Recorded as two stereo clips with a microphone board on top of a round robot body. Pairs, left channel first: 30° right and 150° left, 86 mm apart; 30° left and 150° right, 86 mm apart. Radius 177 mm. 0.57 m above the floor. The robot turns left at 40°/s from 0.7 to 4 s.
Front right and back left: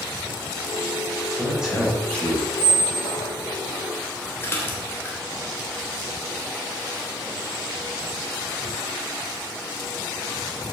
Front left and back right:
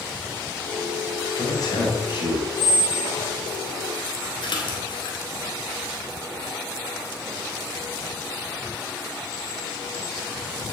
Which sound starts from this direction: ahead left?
A splash, at 4.4 s.